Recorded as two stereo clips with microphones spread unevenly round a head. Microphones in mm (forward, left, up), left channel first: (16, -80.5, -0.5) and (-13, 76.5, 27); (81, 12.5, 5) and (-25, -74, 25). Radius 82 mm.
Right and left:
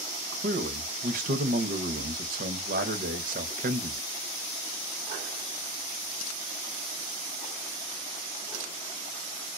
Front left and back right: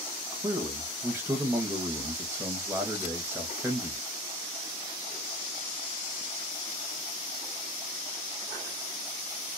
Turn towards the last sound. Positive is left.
turn(degrees=140)